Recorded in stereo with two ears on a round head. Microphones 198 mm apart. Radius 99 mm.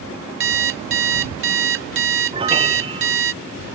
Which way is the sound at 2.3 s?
25° right (ahead or behind).